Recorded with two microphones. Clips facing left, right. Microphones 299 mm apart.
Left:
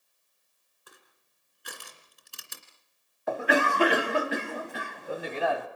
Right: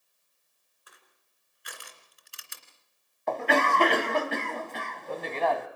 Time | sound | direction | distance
0.9 | crushing | 50° left (ahead or behind) | 2.5 m
3.3 | a cough | 10° left (ahead or behind) | 1.0 m